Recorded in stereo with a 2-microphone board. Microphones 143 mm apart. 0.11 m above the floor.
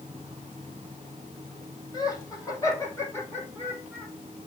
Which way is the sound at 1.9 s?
25° left (ahead or behind).